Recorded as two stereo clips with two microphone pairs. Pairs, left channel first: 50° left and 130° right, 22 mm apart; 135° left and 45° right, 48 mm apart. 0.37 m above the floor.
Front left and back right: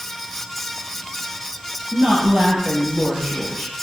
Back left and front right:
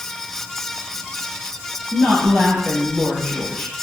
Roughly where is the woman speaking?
Behind right.